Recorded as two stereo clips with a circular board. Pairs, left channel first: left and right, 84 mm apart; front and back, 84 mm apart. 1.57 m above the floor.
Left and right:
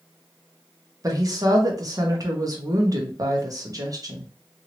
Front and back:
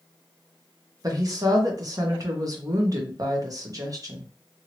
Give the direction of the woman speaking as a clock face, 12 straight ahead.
5 o'clock.